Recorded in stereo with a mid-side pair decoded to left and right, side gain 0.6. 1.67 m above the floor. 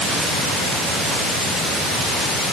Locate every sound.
Only background noise.